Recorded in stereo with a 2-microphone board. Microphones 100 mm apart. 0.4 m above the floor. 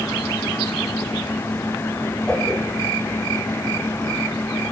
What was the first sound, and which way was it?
A whoosh, 10° left (ahead or behind).